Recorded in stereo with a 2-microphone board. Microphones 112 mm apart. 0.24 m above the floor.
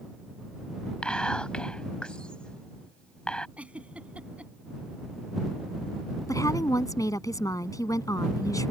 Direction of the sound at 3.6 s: 10° right (ahead or behind).